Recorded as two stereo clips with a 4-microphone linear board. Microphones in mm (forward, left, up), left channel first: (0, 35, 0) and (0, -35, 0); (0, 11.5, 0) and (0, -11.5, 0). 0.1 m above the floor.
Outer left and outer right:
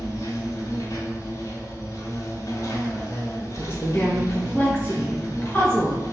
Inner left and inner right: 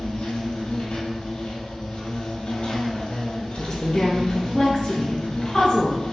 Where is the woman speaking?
30° left (ahead or behind), 1.4 m.